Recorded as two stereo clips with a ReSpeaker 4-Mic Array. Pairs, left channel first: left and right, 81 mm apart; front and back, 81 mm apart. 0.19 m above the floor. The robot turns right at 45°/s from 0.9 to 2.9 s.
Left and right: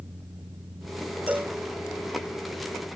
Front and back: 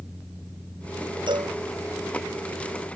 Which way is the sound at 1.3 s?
160° right.